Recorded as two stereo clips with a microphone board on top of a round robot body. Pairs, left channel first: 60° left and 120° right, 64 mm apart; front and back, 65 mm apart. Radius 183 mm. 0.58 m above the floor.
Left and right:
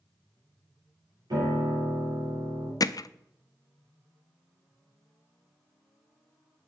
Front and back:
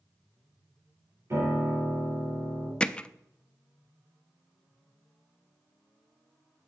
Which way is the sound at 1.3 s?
130° right.